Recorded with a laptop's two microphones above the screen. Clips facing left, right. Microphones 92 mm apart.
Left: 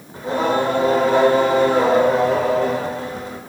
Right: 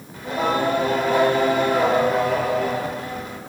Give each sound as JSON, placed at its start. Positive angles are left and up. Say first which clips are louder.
{"t": 0.1, "sound": "singing", "louder": "left 3 dB", "side_deg": 30, "distance_m": 2.0}